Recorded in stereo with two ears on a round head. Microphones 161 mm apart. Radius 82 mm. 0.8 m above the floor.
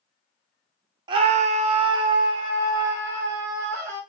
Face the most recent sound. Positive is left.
turn(degrees=-20)  # may be behind; listen again after turning